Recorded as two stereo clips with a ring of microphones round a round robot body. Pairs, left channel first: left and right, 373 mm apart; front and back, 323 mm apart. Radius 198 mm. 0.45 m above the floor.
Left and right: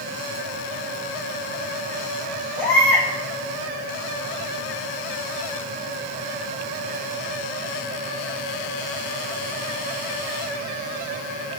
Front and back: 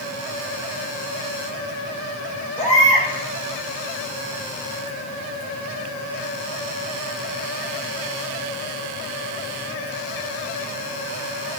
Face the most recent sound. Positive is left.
turn(degrees=70)